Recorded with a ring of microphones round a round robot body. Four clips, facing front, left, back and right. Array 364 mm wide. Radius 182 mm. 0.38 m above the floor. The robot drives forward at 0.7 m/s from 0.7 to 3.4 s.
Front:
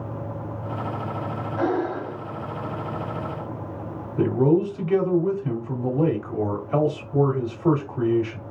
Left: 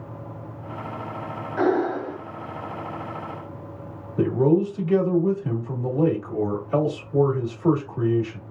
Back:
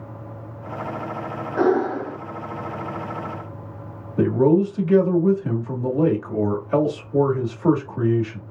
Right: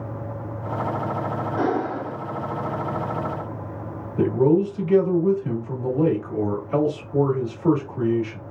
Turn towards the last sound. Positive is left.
turn(degrees=180)